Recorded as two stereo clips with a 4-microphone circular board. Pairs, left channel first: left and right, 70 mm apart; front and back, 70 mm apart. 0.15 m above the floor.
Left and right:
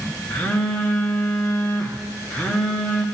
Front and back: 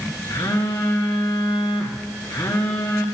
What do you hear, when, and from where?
0.3 s a phone buzzing: 25° left, 2.0 m